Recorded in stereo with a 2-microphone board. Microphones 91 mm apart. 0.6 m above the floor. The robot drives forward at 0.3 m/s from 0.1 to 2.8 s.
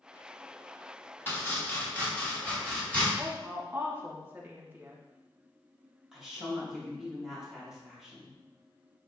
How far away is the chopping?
About 0.8 m.